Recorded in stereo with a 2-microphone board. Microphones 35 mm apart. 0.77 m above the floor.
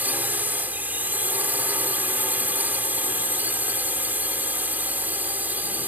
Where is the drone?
60° right (ahead or behind).